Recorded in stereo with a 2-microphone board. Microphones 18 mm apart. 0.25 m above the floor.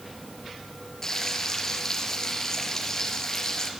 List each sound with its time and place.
1.0 s frying: 25° left (ahead or behind), 4 m